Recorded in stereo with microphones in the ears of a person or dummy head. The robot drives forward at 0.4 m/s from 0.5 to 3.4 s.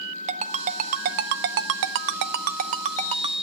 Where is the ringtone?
35° right (ahead or behind), 0.7 m.